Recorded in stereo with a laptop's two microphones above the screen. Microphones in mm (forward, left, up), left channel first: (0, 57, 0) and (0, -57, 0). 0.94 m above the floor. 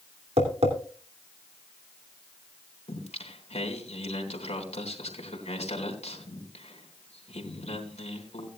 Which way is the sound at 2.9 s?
80° left.